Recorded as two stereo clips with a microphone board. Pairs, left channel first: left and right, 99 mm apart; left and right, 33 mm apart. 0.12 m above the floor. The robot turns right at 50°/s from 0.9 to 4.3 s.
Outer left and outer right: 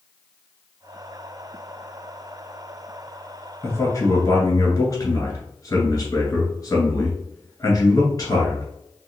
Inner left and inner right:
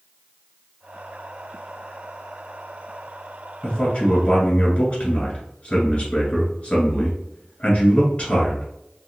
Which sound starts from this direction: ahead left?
A man speaking, at 3.6 s.